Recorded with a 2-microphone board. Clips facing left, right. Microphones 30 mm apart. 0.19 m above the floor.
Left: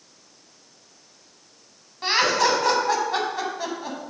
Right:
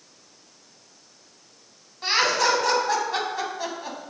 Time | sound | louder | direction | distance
2.0 | laughter | left 1 dB | 15° left (ahead or behind) | 1.5 m